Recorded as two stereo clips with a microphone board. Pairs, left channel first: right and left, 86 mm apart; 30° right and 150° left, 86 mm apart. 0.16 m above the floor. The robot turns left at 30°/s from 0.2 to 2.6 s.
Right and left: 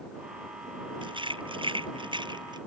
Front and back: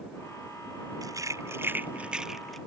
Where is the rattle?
105° left; by 2.6 s 60° left.